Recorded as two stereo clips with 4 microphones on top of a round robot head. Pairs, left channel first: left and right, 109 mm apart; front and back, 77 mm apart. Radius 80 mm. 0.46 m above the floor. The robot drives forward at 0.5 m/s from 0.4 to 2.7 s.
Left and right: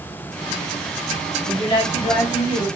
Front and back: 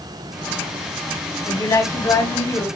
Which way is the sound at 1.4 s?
40° left.